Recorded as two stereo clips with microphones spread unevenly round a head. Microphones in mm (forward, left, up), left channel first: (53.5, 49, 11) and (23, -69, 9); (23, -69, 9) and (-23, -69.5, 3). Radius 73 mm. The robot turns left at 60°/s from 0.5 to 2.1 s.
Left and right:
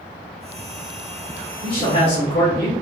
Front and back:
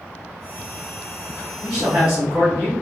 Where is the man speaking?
135° left, 1.2 m; by 2.7 s 105° left, 1.2 m.